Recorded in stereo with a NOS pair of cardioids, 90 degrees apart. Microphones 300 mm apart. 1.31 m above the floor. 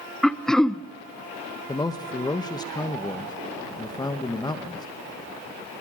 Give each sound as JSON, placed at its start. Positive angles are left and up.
{"t": 0.2, "sound": "throat clearing", "azimuth_deg": 0, "distance_m": 0.7}
{"t": 1.7, "sound": "a man speaking", "azimuth_deg": 15, "distance_m": 1.3}